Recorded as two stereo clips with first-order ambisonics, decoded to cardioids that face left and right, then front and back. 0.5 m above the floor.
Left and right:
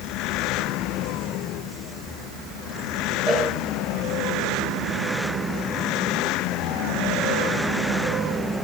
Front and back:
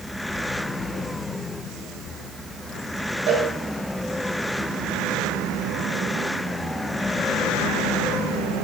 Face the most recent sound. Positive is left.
turn(degrees=-140)